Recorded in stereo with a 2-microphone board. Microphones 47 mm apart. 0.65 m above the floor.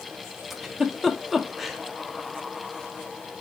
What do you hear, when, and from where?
0.5 s a giggle: centre (ahead or behind), 0.8 m